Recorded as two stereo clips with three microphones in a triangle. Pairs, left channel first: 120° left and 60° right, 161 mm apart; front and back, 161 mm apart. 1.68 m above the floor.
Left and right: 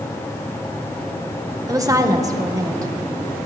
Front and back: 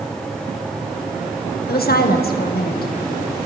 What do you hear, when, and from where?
1.7 s a woman speaking: 10° left, 1.5 m